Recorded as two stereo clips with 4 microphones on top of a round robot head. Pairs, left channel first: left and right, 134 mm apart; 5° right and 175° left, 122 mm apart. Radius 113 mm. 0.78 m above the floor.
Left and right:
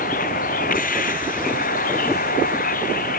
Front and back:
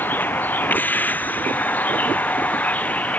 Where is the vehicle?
70° left.